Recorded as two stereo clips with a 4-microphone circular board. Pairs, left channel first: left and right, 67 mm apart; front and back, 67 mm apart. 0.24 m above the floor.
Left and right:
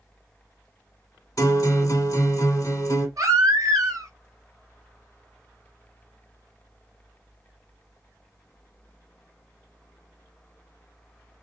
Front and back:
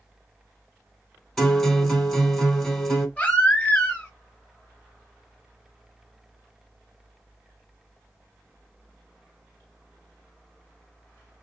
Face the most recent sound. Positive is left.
turn(degrees=-70)